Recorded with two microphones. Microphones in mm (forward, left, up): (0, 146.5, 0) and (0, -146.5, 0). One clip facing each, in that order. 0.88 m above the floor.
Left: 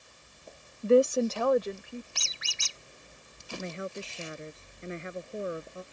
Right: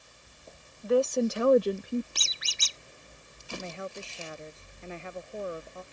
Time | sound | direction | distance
0.8 | a woman speaking | 40° left (ahead or behind) | ?
2.1 | a squeak | 45° right (ahead or behind) | ?
3.6 | a woman speaking | 20° left (ahead or behind) | ?